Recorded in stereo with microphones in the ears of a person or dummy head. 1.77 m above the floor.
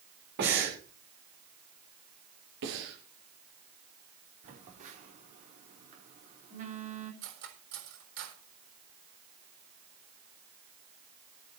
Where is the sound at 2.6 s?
75° right (ahead or behind), 6 m.